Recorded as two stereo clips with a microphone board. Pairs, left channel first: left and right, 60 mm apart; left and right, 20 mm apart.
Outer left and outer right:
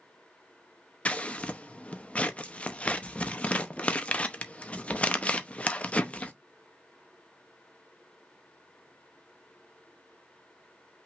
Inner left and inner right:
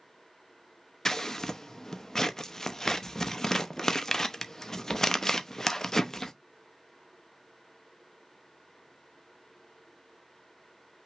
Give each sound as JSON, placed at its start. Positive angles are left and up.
{"t": 1.1, "sound": "scissors", "side_deg": 20, "distance_m": 0.7}